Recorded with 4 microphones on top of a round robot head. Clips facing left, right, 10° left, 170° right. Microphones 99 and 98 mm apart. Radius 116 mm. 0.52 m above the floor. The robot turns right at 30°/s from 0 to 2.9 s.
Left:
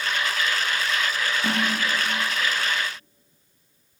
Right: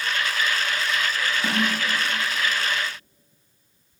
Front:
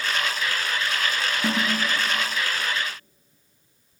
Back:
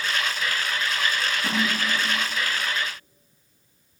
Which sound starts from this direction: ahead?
A snare drum, at 1.4 s.